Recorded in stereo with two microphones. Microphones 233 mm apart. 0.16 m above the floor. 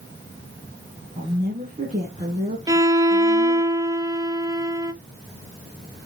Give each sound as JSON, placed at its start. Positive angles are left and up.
{"t": 1.2, "sound": "a woman speaking", "side_deg": -30, "distance_m": 2.0}
{"t": 2.7, "sound": "a violin", "side_deg": -15, "distance_m": 0.7}